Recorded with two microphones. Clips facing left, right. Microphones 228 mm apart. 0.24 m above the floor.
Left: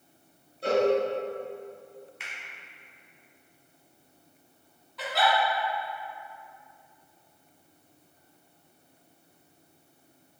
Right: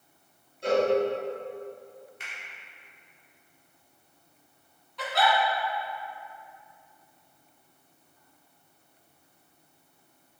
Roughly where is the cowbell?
Left.